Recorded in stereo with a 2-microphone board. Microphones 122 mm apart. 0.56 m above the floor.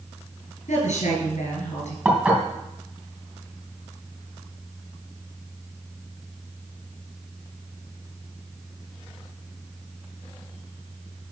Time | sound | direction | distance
0.7 | a woman speaking | 80° left | 4.5 m
2.0 | dishes clattering | 10° right (ahead or behind) | 2.5 m